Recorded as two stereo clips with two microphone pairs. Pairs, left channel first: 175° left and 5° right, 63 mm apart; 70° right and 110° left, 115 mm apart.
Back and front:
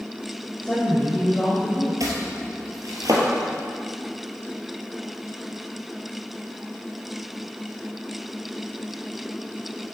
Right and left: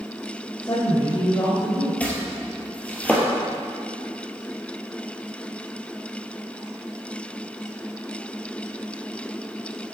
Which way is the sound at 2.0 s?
10° left.